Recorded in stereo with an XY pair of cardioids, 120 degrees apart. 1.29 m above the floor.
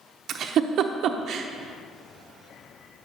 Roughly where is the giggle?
Ahead right.